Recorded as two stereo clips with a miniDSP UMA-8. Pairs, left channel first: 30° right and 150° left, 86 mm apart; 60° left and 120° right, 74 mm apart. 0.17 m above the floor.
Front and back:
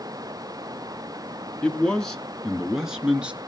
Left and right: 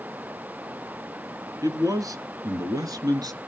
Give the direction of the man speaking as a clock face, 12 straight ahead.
3 o'clock.